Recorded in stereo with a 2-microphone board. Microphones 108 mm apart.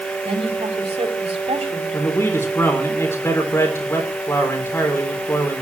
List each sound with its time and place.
0.2 s a woman speaking: 75° right (ahead or behind), 5.5 m
1.9 s a man speaking: 25° left (ahead or behind), 3.5 m